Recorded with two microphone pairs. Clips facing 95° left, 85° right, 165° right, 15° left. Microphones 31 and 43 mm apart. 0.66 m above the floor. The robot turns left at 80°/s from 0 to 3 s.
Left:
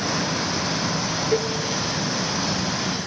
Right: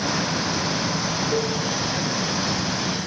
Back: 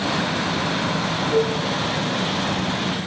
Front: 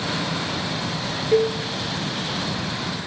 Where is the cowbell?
35° left, 0.6 m; by 1.6 s 15° left, 0.6 m.